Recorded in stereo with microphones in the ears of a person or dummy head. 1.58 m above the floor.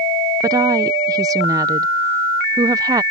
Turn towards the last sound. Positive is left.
turn(degrees=-20)  # may be behind; listen again after turning